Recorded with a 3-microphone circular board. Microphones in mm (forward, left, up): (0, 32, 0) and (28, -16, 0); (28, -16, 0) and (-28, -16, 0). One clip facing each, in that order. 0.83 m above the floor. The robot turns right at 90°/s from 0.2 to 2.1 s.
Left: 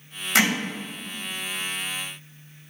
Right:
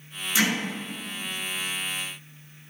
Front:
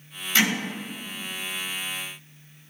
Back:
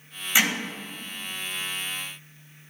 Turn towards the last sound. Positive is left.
turn(degrees=-100)